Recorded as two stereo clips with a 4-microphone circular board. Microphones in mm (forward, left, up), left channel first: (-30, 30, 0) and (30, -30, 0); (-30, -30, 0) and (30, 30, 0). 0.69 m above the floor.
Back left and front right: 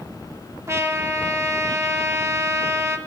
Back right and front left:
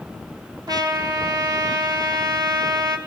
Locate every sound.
0.7 s a trumpet: 10° left, 0.9 m